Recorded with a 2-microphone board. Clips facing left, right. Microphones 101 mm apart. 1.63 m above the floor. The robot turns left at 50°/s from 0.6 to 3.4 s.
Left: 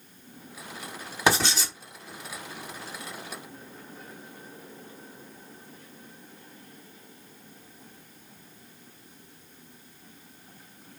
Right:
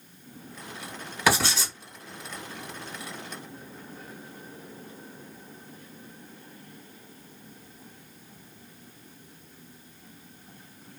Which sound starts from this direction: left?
Writing, at 1.3 s.